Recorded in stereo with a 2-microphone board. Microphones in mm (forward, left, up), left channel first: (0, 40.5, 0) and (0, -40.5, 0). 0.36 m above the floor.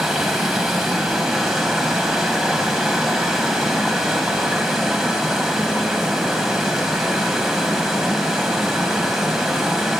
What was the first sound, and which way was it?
Running water, 5° right (ahead or behind).